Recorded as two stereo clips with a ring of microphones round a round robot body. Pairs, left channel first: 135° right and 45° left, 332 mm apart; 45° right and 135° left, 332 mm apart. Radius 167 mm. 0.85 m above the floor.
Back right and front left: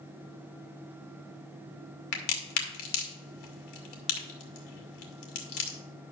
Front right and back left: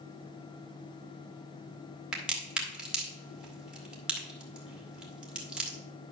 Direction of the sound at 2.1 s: 140° right.